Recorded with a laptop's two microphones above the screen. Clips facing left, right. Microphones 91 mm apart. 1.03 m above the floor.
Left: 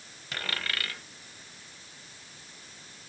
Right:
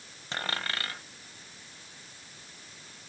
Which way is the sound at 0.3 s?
30° right (ahead or behind).